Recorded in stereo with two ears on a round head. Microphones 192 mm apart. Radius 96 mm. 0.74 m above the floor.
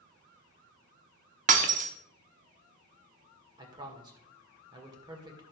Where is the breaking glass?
40° right (ahead or behind), 1.0 m.